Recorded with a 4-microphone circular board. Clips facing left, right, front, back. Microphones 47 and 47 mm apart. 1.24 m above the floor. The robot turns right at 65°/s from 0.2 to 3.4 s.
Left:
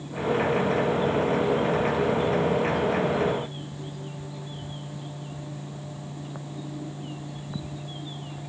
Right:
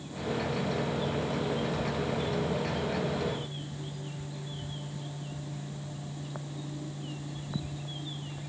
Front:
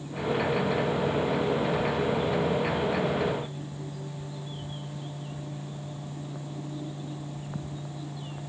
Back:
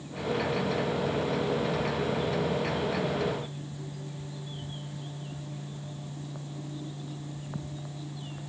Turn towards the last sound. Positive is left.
No sound to turn to.